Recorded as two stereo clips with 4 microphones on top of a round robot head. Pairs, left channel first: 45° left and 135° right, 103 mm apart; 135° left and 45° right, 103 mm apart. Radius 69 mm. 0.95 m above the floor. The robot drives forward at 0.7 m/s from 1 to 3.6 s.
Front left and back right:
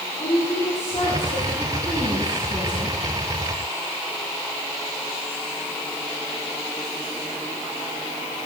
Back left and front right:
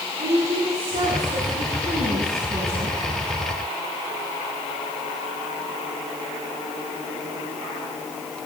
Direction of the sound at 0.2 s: 20° right.